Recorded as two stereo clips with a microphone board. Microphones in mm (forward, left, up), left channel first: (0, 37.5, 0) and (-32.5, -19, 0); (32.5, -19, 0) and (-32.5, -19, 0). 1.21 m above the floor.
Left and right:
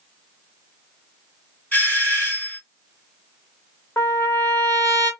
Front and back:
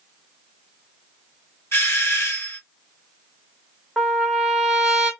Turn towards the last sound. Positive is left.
turn(degrees=100)